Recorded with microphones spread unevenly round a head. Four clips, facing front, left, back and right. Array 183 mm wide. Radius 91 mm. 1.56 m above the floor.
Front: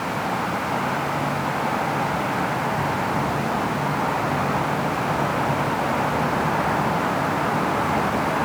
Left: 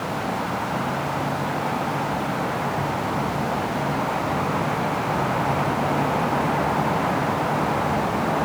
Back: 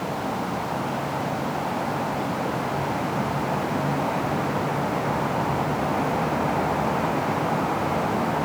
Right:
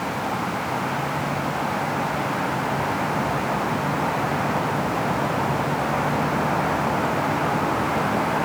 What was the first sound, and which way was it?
Only background noise.